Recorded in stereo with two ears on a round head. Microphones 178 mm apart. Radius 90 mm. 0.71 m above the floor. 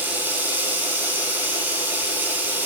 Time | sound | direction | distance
0.0 | running water | 10° right (ahead or behind) | 7.5 m